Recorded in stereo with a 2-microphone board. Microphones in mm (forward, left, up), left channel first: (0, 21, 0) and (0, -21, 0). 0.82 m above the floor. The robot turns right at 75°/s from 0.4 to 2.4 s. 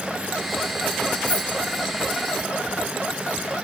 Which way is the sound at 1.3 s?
30° left (ahead or behind).